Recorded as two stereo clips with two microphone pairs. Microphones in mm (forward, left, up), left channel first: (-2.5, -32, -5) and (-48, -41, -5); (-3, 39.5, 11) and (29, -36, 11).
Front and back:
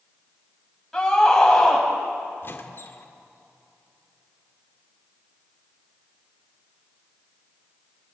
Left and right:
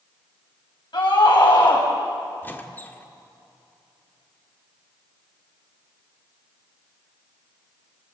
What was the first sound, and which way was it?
A scream, 90° left.